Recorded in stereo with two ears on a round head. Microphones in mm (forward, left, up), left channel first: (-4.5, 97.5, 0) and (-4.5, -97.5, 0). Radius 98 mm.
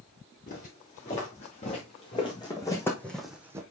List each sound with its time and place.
0.5 s footsteps: 40° left (ahead or behind), 5 m; by 3.6 s 15° right (ahead or behind), 1.6 m